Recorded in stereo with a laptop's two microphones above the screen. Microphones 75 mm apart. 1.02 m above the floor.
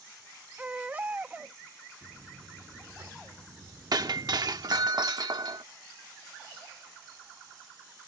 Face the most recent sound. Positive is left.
turn(degrees=-60)  # may be behind; listen again after turning